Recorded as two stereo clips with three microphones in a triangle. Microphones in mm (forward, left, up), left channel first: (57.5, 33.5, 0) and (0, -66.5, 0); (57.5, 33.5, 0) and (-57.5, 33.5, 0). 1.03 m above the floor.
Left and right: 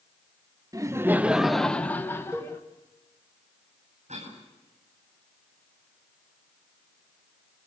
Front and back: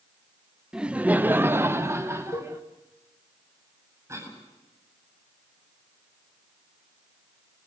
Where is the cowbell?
40° right, 5 m.